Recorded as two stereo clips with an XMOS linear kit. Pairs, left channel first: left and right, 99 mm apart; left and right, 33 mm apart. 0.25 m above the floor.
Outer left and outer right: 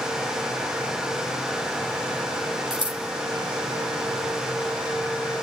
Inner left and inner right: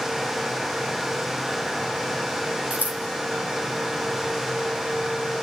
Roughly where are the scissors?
Right.